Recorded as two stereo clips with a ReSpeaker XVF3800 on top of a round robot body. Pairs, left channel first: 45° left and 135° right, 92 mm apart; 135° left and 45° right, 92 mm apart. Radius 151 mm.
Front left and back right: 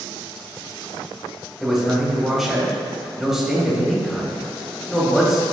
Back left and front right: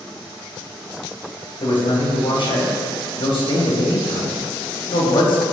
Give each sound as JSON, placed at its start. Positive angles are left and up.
{"t": 1.6, "sound": "a man speaking", "azimuth_deg": 135, "distance_m": 2.5}